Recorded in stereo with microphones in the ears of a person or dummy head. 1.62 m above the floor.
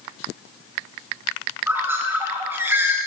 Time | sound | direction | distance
1.7 | a bird | 5° right (ahead or behind) | 0.8 m